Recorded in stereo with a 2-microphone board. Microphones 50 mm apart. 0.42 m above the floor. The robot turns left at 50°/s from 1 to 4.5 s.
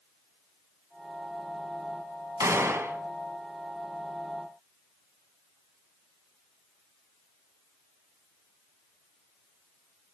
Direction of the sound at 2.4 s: 85° right.